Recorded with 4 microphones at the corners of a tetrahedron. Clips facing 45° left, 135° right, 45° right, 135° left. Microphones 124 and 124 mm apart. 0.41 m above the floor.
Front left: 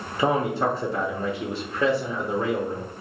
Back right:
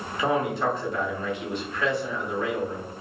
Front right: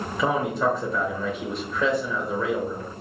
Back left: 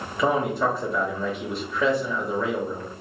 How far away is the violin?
I don't hear a violin.